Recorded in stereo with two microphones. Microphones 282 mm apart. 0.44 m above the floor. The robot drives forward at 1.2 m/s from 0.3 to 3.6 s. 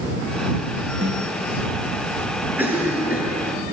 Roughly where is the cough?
Centre.